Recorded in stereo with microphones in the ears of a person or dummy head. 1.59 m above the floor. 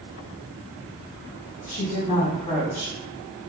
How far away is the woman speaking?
About 1.4 m.